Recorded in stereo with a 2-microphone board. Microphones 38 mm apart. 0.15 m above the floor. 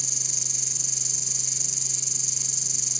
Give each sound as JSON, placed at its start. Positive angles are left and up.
{"t": 0.0, "sound": "an insect", "side_deg": 0}